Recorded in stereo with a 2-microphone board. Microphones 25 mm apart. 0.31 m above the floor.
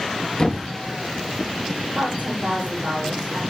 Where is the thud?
30° left (ahead or behind), 3 m.